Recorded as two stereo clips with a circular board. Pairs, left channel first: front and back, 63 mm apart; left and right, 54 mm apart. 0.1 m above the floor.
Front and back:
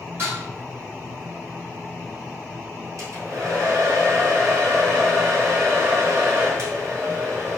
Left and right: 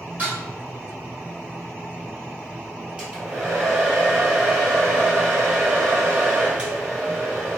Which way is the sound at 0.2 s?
140° right.